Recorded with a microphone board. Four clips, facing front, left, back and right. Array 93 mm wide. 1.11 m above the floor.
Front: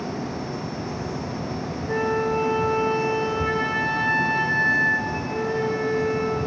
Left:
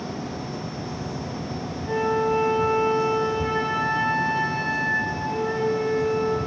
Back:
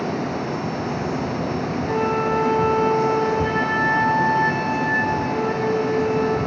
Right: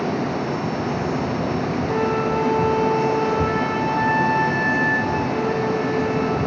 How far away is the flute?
About 4.5 m.